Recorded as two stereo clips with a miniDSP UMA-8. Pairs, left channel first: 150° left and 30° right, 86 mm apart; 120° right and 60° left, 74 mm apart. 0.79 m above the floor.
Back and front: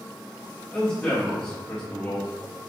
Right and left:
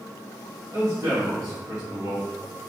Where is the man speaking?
90° left, 1.3 m.